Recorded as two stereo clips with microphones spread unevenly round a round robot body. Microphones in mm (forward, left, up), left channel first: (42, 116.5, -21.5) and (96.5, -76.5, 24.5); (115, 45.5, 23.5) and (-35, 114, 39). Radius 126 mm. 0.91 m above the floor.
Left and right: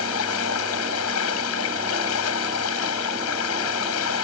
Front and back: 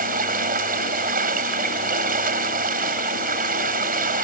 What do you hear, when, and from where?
0.0 s running water: 125° left